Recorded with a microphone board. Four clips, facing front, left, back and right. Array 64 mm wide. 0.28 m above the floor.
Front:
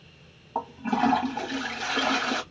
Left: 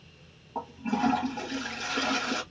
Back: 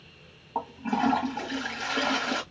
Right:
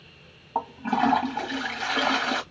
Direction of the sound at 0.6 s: 70° right.